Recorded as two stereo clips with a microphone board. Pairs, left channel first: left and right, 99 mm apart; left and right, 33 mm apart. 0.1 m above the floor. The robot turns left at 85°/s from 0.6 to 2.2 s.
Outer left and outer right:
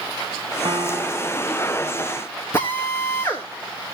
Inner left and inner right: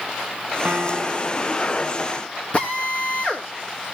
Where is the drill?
25° left (ahead or behind), 5 m.